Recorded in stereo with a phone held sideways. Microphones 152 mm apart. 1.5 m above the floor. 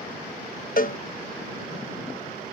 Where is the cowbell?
60° left (ahead or behind).